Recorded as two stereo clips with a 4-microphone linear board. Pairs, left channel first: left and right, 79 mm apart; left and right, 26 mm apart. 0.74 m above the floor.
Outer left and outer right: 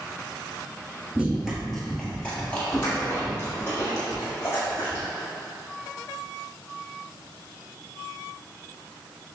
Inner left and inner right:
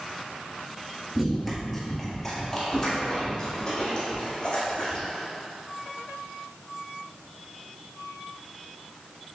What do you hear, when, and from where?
1.1 s running footsteps: 10° right (ahead or behind), 0.9 m; by 5.1 s 40° left (ahead or behind), 2.5 m